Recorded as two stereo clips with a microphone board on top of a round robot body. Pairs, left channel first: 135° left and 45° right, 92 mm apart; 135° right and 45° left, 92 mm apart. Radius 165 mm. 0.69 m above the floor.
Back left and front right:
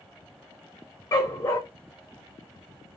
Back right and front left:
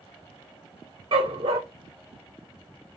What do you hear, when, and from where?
1.1 s a dog barking: 80° left, 0.5 m